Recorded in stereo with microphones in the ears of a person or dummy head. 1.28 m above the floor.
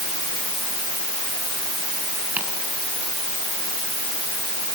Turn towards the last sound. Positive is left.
turn(degrees=-5)  # may be behind; listen again after turning